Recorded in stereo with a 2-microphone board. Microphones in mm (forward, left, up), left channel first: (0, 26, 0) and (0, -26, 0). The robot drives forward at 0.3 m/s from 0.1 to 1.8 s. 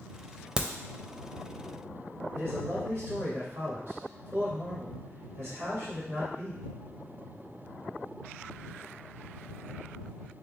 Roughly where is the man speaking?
Right.